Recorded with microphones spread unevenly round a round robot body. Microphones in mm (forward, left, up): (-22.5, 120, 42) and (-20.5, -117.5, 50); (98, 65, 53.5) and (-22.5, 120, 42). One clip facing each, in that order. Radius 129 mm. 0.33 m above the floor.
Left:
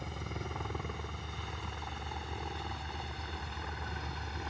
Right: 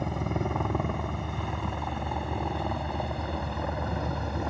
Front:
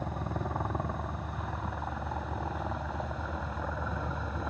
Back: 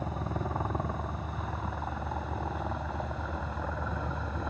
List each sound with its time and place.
0.0 s a helicopter: 115° right